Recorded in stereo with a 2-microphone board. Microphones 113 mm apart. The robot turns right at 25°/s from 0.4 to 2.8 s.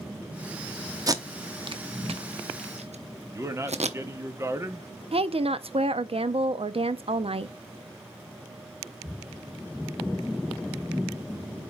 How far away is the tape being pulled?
About 0.7 m.